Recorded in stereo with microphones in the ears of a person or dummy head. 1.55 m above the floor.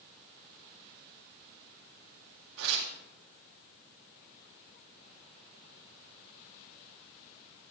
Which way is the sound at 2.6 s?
80° right.